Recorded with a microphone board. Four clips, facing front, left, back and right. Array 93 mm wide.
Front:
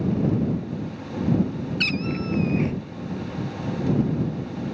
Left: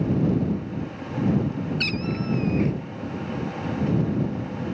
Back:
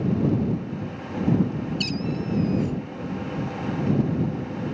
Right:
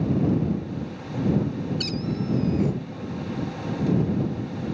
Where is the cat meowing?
30° left.